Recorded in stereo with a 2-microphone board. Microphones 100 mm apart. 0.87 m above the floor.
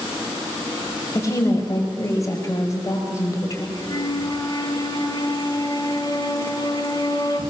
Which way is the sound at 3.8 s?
40° left (ahead or behind).